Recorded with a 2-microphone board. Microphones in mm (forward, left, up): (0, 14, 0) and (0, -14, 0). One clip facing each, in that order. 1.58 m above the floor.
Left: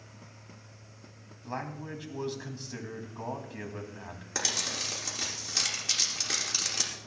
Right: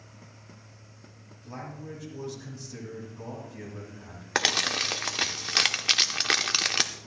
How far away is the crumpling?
About 0.9 m.